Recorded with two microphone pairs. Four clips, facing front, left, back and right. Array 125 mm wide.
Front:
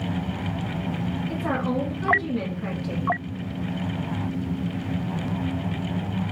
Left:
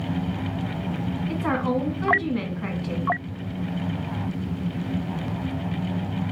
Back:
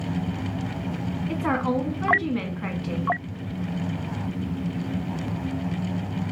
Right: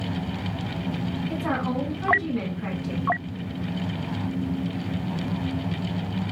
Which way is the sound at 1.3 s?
155° left.